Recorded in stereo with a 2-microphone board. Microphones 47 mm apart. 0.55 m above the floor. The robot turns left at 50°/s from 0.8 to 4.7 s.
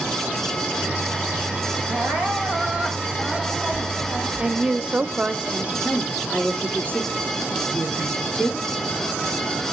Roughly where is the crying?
Behind right.